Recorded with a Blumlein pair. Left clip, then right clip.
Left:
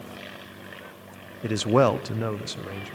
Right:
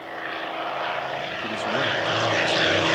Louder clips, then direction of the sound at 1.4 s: Left 5 dB; 65° left.